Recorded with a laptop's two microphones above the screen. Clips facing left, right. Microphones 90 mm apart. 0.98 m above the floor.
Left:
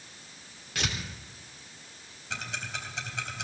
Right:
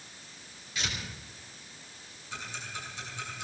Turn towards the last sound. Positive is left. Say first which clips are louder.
# left 3 dB
turn(degrees=80)